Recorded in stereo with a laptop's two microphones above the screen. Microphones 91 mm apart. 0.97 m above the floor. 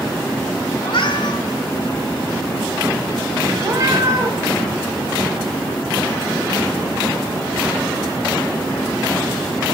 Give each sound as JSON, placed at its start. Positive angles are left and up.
{"t": 0.8, "sound": "a cat meowing", "side_deg": 65, "distance_m": 1.4}
{"t": 3.6, "sound": "a cat meowing", "side_deg": -40, "distance_m": 1.3}